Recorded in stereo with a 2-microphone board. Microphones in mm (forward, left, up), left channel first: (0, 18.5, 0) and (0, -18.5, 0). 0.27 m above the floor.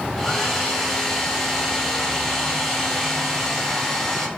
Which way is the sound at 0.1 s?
5° left (ahead or behind).